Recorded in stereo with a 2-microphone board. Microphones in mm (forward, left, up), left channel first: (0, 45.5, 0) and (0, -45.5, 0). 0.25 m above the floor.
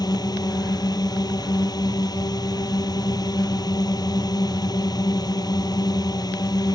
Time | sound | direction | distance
0.0 | a drone | 55° left (ahead or behind) | ?